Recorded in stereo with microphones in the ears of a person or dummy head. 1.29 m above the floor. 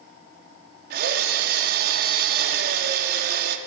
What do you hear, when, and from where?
0.9 s a drill: 60° right (ahead or behind), 1.8 m